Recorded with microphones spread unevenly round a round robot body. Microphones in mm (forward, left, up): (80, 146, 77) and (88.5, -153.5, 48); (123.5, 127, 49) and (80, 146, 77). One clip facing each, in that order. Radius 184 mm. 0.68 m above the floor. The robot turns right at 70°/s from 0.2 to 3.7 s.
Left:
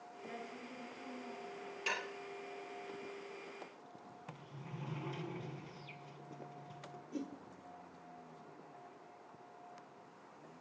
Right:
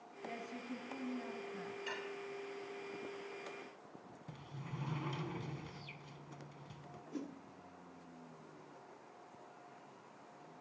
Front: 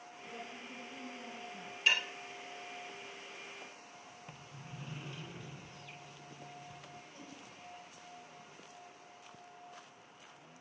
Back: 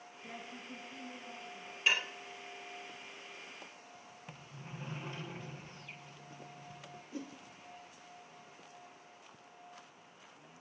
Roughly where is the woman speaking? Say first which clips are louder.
Right 3 dB, even; behind.